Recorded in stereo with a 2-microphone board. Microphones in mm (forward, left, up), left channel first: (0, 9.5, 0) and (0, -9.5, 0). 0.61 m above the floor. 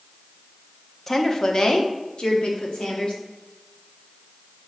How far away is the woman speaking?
About 0.9 m.